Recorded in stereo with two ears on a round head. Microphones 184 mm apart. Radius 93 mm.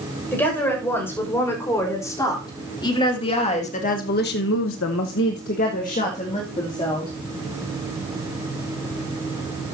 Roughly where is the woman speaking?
Centre.